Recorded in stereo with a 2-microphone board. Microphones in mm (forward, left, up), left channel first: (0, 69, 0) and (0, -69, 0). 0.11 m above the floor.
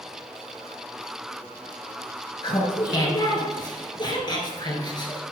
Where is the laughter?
30° left (ahead or behind), 1.3 m.